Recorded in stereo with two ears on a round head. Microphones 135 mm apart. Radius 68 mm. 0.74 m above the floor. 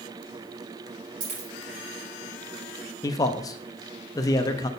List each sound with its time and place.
1.2 s a dropped coin: 60° right (ahead or behind), 4 m
3.0 s a man speaking: 25° left (ahead or behind), 0.6 m